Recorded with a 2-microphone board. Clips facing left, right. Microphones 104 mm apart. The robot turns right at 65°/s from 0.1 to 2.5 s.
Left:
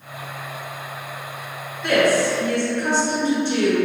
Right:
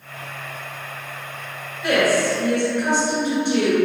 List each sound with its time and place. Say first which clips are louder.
1.8 s a woman speaking: left 1 dB; 5° right (ahead or behind), 1.5 m; by 3.8 s 15° right (ahead or behind), 1.5 m